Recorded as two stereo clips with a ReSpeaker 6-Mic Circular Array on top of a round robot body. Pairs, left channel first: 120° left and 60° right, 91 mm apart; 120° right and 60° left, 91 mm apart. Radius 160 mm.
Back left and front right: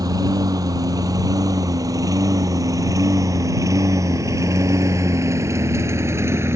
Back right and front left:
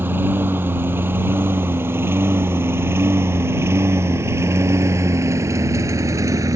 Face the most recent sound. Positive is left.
turn(degrees=5)